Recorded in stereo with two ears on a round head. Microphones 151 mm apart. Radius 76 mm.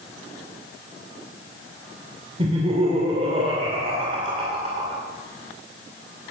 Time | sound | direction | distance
2.4 | laughter | 35° right (ahead or behind) | 2.5 m